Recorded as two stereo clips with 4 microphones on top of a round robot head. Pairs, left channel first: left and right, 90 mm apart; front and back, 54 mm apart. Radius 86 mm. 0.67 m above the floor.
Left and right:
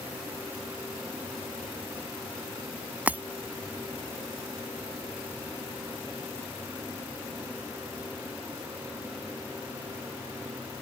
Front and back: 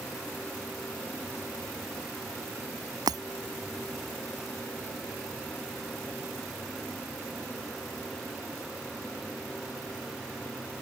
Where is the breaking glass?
160° right.